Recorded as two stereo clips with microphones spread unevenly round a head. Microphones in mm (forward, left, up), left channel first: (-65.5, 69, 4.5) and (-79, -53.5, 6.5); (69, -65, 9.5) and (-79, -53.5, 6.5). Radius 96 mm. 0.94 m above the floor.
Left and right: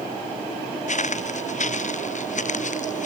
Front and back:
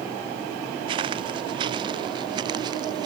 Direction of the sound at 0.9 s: 110° left.